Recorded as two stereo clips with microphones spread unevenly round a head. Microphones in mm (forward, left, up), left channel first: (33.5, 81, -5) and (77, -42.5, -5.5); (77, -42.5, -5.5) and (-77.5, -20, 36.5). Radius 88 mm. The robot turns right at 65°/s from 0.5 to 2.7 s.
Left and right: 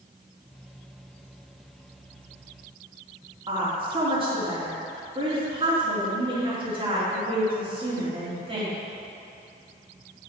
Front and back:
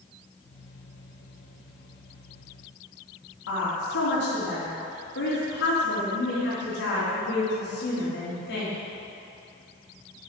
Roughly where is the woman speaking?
Ahead.